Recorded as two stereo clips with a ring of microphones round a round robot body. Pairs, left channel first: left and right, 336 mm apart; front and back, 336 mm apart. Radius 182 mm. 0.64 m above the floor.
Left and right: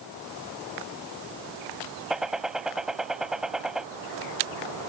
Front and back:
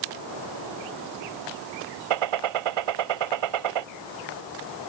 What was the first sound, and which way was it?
A gunshot, straight behind.